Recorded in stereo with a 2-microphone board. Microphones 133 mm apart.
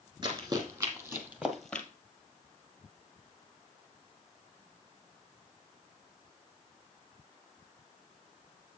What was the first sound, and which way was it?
Running footsteps, 35° right (ahead or behind).